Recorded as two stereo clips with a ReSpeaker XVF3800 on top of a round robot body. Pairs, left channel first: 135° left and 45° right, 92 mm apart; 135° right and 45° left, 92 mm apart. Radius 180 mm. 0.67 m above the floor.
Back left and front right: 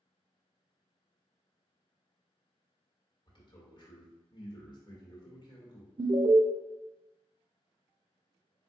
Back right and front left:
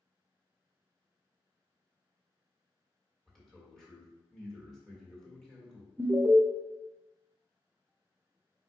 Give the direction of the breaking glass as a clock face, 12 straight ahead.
No breaking glass in this recording.